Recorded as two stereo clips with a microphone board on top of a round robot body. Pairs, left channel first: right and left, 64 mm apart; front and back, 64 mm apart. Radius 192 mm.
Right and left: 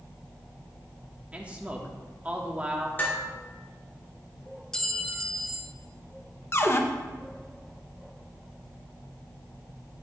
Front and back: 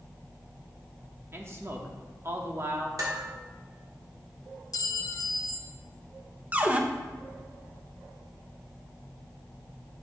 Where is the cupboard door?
120° right, 1.0 m.